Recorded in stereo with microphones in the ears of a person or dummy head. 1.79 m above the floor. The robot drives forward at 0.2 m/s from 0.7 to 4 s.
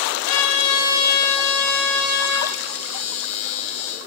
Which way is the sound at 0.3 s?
70° left (ahead or behind).